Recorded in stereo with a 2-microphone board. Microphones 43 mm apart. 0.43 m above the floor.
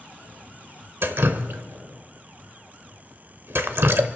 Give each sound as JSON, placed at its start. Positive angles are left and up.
{"t": 1.0, "sound": "dripping", "side_deg": -60, "distance_m": 0.8}